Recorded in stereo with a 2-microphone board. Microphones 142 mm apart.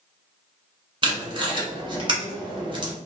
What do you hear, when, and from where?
1.0 s tape being pulled: 35° right (ahead or behind), 0.9 m